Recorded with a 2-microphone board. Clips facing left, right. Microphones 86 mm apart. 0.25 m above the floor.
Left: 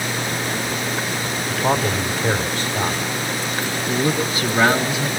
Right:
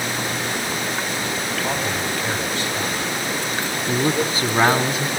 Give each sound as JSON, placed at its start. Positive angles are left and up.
{"t": 1.5, "sound": "a man speaking", "side_deg": 30, "distance_m": 1.4}
{"t": 3.9, "sound": "a man speaking", "side_deg": -35, "distance_m": 2.5}